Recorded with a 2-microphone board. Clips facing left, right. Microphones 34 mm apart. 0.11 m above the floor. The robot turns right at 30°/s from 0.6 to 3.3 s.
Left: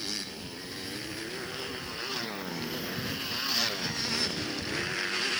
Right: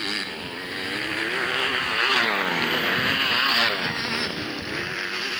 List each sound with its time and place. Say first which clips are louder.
0.0 s a motorcycle: right 9 dB; 50° right (ahead or behind); by 5.4 s 5° right (ahead or behind)